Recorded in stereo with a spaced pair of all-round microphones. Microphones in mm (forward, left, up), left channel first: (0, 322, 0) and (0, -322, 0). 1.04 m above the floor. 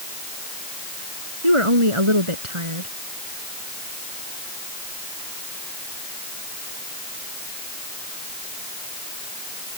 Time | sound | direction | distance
1.4 | a woman speaking | 50° right (ahead or behind) | ?